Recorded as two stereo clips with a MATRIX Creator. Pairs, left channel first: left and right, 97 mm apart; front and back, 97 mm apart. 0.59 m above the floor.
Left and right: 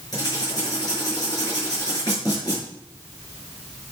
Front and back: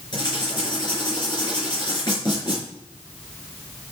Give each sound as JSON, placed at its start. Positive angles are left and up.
{"t": 0.1, "sound": "writing", "azimuth_deg": 40, "distance_m": 5.5}